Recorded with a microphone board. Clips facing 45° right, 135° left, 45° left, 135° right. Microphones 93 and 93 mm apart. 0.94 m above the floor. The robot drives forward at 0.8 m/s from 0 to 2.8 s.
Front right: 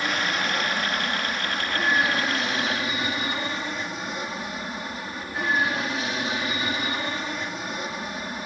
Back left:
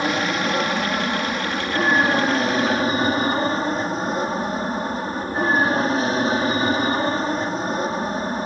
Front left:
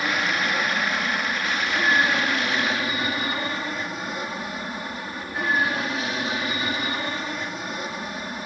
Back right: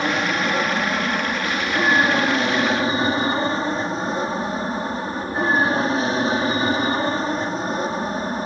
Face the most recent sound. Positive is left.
turn(degrees=180)